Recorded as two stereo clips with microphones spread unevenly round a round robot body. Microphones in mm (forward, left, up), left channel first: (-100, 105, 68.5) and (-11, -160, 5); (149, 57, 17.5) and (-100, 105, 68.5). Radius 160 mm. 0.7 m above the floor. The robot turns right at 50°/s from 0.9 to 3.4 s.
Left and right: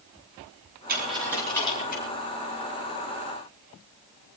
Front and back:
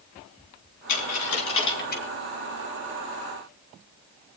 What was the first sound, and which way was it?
A dropped coin, 5° right.